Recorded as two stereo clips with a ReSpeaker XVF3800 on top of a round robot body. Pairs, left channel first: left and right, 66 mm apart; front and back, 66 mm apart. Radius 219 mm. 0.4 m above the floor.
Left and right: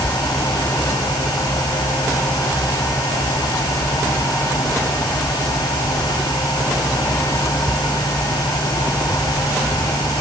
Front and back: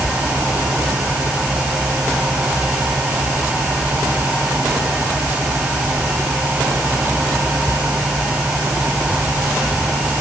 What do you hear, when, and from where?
Only background noise.